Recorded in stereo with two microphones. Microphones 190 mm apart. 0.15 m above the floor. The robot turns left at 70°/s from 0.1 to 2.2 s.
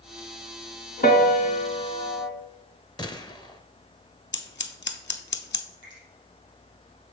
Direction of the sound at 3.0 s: 20° left (ahead or behind).